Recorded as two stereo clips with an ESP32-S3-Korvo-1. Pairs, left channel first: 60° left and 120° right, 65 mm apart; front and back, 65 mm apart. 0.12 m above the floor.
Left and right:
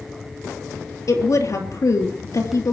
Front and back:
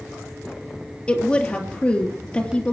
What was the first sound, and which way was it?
A woman speaking, 65° left.